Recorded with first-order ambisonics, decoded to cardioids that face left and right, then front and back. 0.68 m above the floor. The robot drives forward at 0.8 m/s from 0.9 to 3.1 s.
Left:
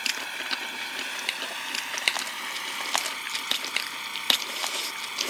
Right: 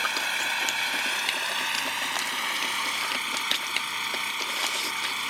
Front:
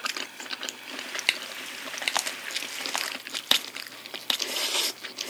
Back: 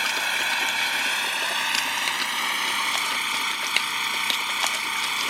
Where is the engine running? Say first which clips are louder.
Right 4 dB, back 10 dB; 155° right; by 5.3 s 160° right.